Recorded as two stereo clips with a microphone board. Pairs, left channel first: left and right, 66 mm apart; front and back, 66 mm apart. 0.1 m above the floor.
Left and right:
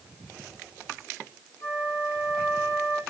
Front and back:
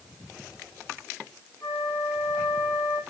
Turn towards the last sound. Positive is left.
turn(degrees=40)